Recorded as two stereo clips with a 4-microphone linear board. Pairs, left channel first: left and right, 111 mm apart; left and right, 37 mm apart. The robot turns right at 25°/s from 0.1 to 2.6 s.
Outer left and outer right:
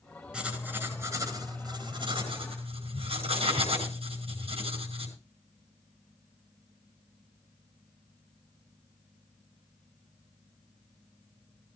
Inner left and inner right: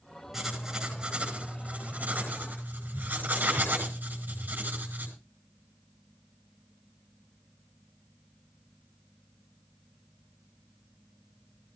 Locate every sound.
0.3 s writing: 175° right, 5 m; by 5.1 s 115° right, 5 m